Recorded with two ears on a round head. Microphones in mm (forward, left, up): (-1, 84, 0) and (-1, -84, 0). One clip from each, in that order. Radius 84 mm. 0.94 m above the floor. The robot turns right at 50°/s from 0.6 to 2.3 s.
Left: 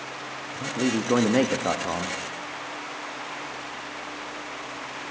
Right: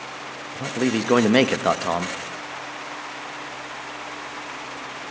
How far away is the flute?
No flute in this recording.